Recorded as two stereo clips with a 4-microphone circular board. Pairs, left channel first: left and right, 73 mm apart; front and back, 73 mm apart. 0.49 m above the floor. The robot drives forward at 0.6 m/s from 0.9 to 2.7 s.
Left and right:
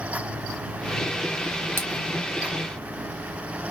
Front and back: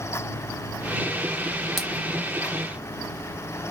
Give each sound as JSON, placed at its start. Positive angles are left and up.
{"t": 1.8, "sound": "a splash", "azimuth_deg": -90, "distance_m": 1.5}